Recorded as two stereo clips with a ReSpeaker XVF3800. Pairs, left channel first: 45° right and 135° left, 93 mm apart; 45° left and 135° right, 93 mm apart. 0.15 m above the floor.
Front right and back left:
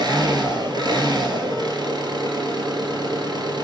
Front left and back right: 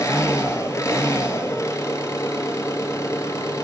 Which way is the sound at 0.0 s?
100° left.